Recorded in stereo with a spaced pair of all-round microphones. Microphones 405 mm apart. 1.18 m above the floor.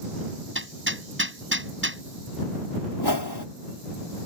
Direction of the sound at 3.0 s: 85° left.